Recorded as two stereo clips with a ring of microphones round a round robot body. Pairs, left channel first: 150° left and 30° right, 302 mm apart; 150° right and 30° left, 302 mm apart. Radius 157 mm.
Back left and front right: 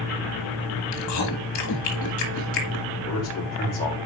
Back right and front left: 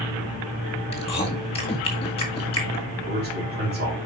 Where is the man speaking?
90° left, 3.5 m.